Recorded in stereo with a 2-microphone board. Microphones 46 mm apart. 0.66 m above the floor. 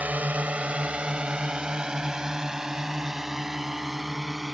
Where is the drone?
35° right (ahead or behind); by 4.5 s centre (ahead or behind).